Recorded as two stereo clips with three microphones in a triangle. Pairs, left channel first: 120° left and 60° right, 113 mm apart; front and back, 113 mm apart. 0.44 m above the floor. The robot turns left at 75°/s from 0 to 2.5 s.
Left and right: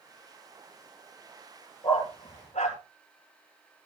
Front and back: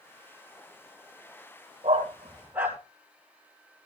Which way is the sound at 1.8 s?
155° left.